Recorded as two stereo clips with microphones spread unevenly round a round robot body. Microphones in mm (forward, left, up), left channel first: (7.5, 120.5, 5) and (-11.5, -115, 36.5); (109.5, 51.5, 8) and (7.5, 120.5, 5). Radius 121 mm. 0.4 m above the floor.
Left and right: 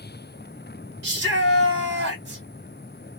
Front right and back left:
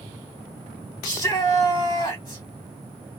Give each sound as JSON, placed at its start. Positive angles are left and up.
{"t": 1.0, "sound": "a shout", "azimuth_deg": -75, "distance_m": 1.0}